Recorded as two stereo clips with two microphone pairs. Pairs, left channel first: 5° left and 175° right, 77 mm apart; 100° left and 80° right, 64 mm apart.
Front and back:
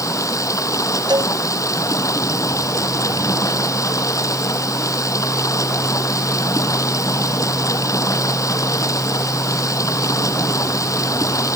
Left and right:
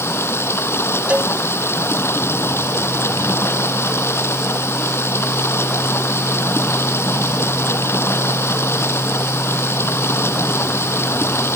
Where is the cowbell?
150° right.